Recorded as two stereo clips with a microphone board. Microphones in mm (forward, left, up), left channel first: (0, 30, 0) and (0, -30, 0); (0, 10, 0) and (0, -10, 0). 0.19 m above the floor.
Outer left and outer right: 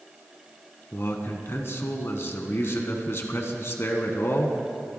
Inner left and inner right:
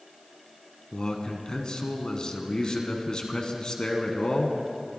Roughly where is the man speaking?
Left.